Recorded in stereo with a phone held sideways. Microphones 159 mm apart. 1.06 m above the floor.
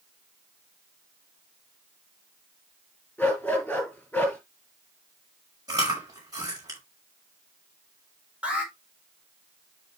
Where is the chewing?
25° right (ahead or behind), 6.5 m.